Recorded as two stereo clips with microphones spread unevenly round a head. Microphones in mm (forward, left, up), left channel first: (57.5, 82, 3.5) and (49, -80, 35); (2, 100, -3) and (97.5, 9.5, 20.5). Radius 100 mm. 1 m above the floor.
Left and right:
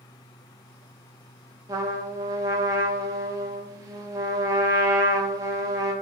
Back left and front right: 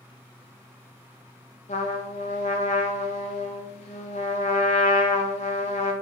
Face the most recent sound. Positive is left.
turn(degrees=-165)